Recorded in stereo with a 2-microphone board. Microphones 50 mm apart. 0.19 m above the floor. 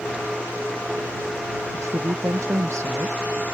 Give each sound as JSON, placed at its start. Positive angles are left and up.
{"t": 1.7, "sound": "a woman speaking", "side_deg": -80}